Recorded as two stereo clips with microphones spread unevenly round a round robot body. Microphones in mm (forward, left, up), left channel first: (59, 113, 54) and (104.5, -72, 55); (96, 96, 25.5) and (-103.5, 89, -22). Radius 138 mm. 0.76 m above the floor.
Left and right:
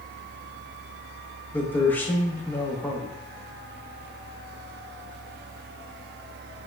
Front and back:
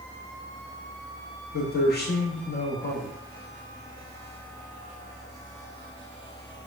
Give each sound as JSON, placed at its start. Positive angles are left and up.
{"t": 1.5, "sound": "a man speaking", "azimuth_deg": 30, "distance_m": 1.3}